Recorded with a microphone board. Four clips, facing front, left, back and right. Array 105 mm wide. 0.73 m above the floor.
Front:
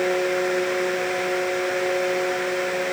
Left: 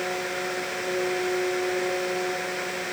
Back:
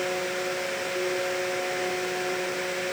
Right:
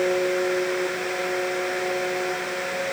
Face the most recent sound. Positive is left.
No sound to turn to.